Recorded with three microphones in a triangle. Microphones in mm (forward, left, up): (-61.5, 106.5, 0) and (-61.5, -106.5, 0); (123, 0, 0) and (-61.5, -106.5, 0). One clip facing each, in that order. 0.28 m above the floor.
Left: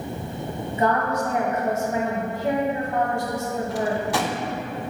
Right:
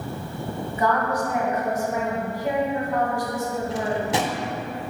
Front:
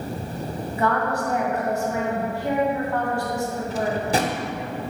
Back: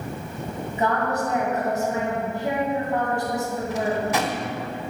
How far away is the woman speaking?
About 1.5 m.